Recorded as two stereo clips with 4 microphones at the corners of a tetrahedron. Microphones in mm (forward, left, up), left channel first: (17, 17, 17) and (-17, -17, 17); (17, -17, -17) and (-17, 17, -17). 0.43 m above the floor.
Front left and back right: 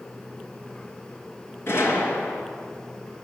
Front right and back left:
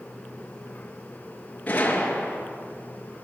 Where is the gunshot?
15° left, 3.5 m.